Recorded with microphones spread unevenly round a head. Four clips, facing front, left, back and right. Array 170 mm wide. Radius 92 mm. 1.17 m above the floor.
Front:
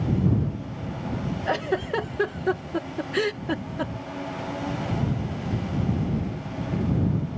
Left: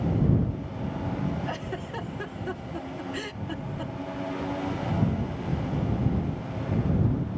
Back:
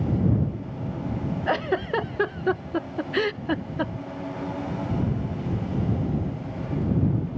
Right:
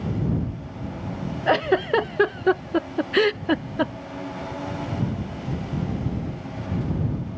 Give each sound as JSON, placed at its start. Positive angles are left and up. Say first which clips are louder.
{"t": 1.5, "sound": "a giggle", "louder": "right 14 dB, back 1 dB", "azimuth_deg": -85}